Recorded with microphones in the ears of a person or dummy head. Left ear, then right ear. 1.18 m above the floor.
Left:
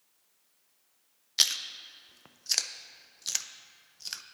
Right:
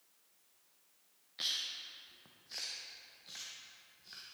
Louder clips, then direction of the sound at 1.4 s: Left 10 dB; 70° left (ahead or behind).